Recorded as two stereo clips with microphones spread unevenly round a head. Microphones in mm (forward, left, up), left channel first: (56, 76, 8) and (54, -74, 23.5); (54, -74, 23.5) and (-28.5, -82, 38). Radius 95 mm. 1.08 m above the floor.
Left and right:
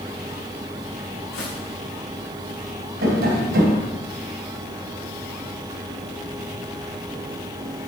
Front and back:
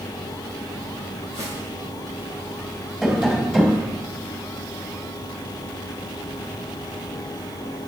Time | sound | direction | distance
1.3 | footsteps | 130° left | 4 m
3.0 | tapping | 90° right | 3 m